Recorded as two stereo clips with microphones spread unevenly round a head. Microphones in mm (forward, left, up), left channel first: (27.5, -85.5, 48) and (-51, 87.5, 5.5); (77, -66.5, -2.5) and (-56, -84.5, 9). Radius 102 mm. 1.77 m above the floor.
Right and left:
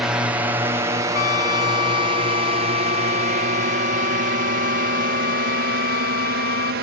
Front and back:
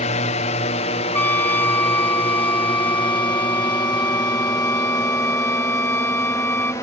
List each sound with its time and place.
0.0 s a drone: 35° left; by 6.8 s 85° left
1.1 s a trumpet: 70° right